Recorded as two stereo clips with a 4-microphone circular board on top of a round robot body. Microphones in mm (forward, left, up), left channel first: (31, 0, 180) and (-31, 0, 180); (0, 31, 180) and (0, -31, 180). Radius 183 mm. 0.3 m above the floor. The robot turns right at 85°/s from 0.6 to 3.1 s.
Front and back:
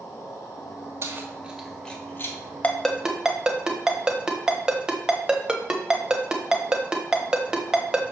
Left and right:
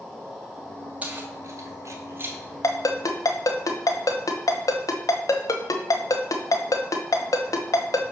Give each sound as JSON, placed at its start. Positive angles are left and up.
{"t": 0.0, "sound": "an insect", "azimuth_deg": 5, "distance_m": 3.5}
{"t": 1.0, "sound": "keys jangling", "azimuth_deg": -150, "distance_m": 1.6}
{"t": 2.6, "sound": "a ringtone", "azimuth_deg": 65, "distance_m": 1.2}